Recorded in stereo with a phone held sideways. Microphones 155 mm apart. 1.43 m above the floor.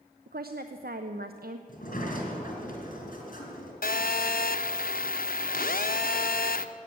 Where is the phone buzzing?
70° left (ahead or behind), 0.6 m.